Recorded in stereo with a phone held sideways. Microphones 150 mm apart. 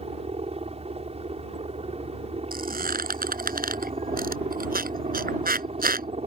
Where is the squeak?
80° right.